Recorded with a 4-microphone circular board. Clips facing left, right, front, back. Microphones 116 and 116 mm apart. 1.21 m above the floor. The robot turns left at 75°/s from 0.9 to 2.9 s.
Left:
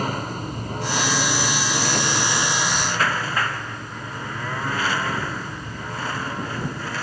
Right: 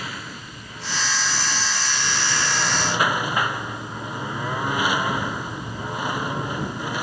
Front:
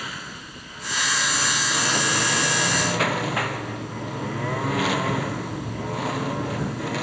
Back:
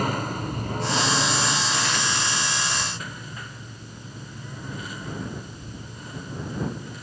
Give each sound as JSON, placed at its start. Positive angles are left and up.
{"t": 0.0, "sound": "a lawn mower", "azimuth_deg": 135}